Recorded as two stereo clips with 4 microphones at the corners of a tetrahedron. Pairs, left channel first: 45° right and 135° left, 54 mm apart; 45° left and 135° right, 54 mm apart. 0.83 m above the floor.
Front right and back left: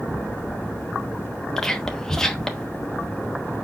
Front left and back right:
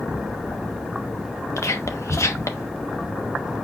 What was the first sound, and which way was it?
Whispering, 35° left.